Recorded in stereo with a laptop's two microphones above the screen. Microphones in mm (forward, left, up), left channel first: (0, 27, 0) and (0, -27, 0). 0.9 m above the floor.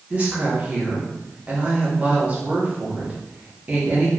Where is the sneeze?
I don't hear a sneeze.